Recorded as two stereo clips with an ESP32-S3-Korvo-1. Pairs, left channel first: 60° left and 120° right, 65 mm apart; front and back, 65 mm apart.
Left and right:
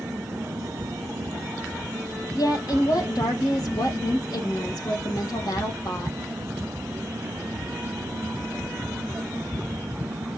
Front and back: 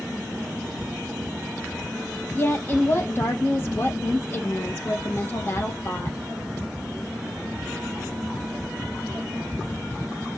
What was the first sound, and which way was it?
A woman speaking, 55° left.